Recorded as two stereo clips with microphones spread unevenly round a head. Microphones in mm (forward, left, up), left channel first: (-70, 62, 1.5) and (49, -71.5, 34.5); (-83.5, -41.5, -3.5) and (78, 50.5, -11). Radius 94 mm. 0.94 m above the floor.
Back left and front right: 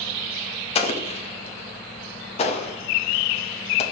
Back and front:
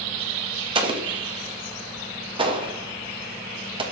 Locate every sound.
0.8 s an explosion: 90° left, 1.1 m